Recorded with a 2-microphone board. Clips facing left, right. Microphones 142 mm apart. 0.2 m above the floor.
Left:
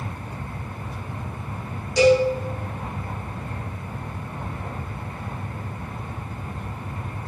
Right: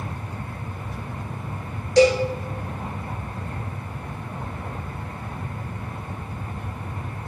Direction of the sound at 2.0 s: 75° right (ahead or behind).